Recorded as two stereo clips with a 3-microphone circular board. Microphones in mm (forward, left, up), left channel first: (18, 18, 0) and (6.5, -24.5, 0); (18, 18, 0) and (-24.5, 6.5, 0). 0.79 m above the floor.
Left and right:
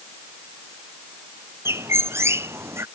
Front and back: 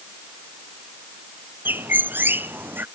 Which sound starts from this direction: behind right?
A bird, at 1.6 s.